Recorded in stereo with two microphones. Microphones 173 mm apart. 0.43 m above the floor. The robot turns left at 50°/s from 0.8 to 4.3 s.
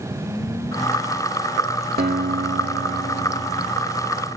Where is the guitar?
60° right, 1.0 m; by 3.8 s 150° right, 1.0 m.